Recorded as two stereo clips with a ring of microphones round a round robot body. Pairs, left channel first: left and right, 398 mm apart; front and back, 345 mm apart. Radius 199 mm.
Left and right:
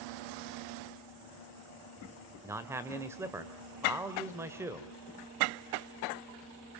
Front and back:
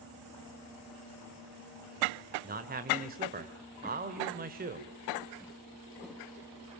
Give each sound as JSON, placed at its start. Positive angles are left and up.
{"t": 2.4, "sound": "a man speaking", "azimuth_deg": -165, "distance_m": 1.6}